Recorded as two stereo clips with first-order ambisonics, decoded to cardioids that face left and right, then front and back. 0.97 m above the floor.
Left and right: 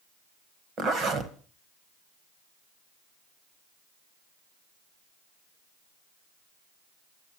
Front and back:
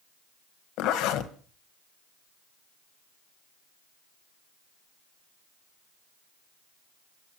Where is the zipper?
30° right, 1.7 m.